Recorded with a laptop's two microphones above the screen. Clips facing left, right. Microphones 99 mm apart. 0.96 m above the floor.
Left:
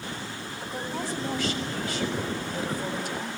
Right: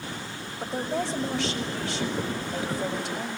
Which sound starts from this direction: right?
A woman speaking, at 0.6 s.